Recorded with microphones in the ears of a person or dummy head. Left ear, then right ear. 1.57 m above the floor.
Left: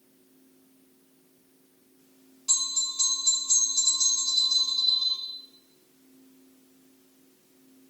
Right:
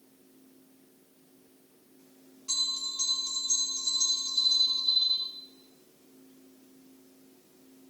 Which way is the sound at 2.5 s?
15° left (ahead or behind).